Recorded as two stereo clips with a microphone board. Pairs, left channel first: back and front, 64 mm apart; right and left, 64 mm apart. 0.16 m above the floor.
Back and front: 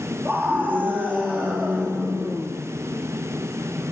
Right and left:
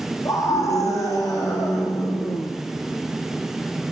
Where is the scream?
60° right, 7.5 m.